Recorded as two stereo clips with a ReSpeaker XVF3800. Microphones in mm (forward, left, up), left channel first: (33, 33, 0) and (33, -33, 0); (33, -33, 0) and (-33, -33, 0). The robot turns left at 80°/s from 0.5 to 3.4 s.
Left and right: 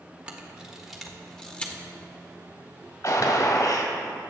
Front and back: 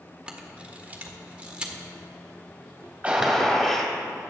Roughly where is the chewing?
I don't hear chewing.